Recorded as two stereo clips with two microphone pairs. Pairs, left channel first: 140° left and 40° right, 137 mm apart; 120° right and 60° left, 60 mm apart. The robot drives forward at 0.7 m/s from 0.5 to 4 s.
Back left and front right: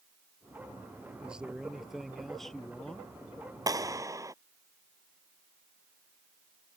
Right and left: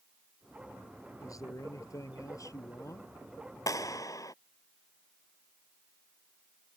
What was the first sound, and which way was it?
A man speaking, 125° right.